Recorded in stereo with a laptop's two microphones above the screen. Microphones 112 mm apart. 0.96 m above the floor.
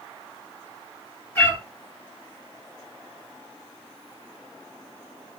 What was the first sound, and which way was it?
A cat meowing, 20° left (ahead or behind).